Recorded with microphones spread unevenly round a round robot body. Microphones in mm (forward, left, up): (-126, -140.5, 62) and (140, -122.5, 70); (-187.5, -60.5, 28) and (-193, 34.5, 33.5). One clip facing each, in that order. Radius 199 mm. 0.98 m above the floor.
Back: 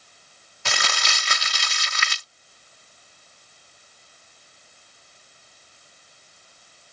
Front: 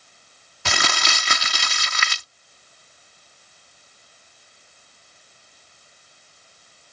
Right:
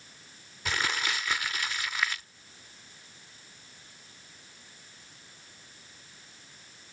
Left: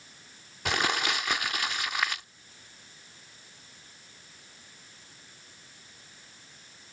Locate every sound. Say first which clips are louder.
0.7 s crumpling: front 4 dB, left 3 dB; 25° left